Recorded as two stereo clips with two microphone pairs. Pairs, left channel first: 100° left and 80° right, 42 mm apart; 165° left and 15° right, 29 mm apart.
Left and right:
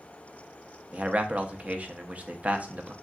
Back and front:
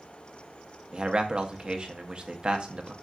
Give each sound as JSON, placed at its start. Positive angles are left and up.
{"t": 0.9, "sound": "a man speaking", "azimuth_deg": -45, "distance_m": 0.6}